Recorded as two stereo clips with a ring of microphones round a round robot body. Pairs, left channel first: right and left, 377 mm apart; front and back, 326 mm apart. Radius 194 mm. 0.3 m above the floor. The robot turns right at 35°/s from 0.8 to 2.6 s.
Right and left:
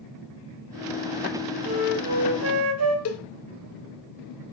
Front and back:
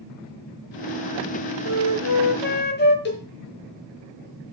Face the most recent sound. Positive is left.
turn(degrees=-50)